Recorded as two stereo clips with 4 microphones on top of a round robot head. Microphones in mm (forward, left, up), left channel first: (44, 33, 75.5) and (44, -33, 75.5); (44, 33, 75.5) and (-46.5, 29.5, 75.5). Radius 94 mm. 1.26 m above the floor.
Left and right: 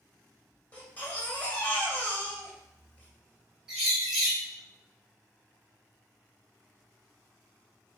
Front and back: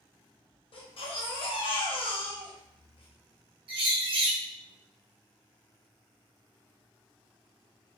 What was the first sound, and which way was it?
A baby crying, 20° left.